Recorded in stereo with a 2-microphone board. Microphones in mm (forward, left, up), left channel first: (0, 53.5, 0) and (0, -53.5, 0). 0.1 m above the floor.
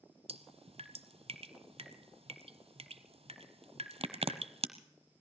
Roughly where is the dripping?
Right.